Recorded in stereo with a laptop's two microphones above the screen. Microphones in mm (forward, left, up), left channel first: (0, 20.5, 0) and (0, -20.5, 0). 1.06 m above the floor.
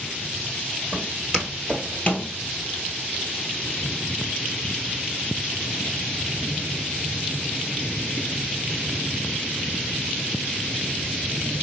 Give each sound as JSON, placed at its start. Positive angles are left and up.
{"t": 0.9, "sound": "footsteps", "side_deg": -10, "distance_m": 1.9}